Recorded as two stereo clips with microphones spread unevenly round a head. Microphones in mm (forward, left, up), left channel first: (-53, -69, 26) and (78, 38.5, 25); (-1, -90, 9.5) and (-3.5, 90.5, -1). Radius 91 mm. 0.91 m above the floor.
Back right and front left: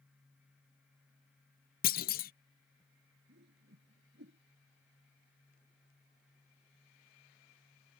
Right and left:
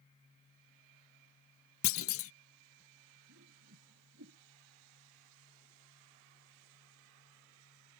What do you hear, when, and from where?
1.8 s a clunk: 105° right
3.3 s a whoosh: 70° left